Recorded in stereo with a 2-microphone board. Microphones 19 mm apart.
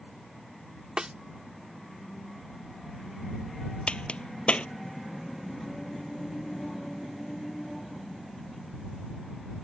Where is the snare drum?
50° right (ahead or behind).